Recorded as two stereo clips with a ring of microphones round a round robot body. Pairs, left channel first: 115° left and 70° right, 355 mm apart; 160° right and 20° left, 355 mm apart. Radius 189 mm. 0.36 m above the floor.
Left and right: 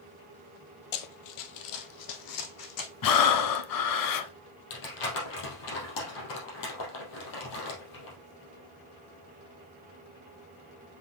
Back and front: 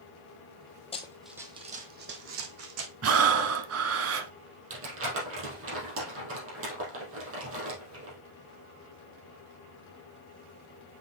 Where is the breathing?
75° left, 0.8 m.